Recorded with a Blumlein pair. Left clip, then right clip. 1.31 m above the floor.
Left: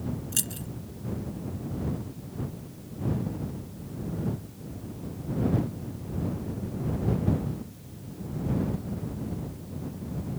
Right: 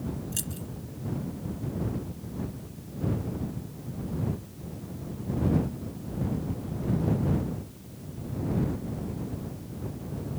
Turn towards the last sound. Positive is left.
turn(degrees=20)